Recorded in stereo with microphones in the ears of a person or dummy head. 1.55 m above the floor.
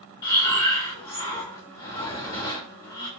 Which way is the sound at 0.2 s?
20° left (ahead or behind).